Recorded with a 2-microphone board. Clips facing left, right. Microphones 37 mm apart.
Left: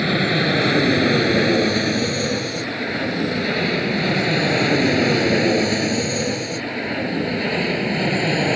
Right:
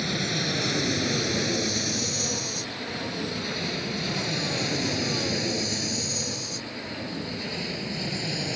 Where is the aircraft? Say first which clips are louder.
Left 9 dB; 40° left (ahead or behind); by 8.6 s 50° left (ahead or behind).